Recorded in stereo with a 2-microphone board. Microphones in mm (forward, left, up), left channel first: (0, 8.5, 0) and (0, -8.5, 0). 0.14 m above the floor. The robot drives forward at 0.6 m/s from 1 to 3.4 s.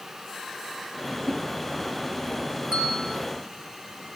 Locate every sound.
1.2 s a whoosh: 65° right (ahead or behind), 9.5 m; by 1.4 s 60° right (ahead or behind), 9.5 m
2.7 s a bell: 60° right (ahead or behind), 3 m; by 3.2 s 65° right (ahead or behind), 3 m